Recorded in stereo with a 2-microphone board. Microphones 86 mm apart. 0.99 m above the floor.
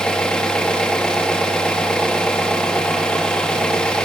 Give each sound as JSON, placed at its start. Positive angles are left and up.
{"t": 0.0, "sound": "an engine running", "side_deg": 10, "distance_m": 1.1}